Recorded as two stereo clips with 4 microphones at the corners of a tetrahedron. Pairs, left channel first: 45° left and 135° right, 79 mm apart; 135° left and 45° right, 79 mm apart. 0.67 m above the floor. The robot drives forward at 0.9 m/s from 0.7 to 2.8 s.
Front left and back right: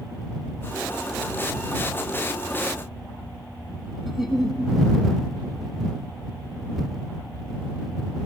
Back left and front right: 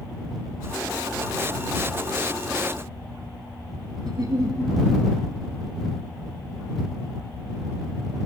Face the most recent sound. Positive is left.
turn(degrees=-45)